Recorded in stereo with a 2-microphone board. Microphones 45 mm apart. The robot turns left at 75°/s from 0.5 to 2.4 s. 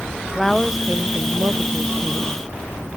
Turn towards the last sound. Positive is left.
turn(degrees=-135)